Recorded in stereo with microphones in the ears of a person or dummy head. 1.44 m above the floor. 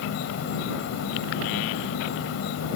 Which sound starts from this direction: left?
An insect, at 0.0 s.